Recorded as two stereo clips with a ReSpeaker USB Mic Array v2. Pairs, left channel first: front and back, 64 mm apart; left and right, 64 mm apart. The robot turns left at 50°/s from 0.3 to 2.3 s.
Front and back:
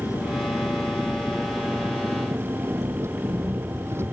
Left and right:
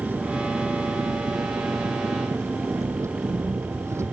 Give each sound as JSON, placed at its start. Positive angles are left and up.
{"t": 0.0, "sound": "an engine running", "azimuth_deg": -35}